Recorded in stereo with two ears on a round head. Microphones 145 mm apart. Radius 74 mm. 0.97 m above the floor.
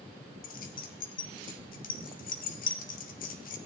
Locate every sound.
0.4 s keys jangling: 55° left (ahead or behind), 1.2 m